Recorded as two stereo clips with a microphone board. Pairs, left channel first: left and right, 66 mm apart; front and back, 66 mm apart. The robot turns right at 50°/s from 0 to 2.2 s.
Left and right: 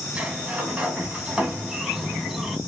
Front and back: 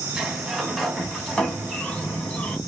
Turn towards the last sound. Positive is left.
turn(degrees=-15)